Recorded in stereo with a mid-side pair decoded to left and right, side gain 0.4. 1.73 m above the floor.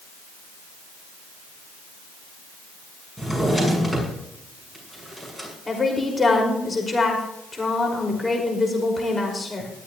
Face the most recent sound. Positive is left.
turn(degrees=25)